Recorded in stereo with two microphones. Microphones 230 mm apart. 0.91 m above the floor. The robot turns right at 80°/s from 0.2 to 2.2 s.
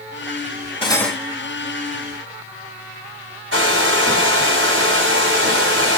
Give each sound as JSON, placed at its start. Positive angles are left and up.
{"t": 0.8, "sound": "cutlery clinking", "azimuth_deg": 155, "distance_m": 2.0}
{"t": 3.5, "sound": "a hair dryer", "side_deg": -60, "distance_m": 3.5}